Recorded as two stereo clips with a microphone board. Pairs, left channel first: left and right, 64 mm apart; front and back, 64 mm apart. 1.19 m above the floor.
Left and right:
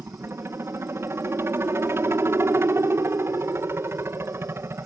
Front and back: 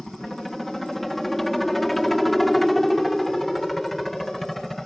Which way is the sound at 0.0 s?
85° right.